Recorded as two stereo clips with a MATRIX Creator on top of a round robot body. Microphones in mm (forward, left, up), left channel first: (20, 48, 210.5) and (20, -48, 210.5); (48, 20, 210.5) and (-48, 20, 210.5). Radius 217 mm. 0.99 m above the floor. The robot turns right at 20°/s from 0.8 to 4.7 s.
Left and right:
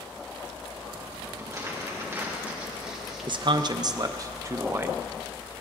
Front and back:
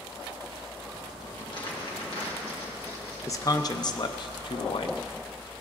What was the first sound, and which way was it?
Crumpling, 40° right.